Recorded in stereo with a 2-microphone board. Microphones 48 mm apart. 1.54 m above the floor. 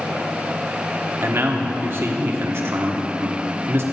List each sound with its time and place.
1.2 s a man speaking: 55° right (ahead or behind), 1.0 m